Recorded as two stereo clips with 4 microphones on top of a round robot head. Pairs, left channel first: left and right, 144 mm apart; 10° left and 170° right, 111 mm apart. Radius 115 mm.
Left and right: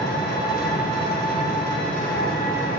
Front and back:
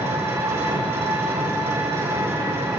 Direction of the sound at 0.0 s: 125° left.